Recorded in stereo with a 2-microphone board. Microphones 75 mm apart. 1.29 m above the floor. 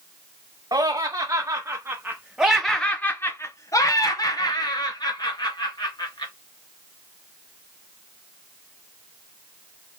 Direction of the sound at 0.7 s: 60° right (ahead or behind).